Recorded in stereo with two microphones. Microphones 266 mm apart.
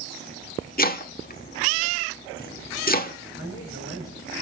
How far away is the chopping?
About 1.3 m.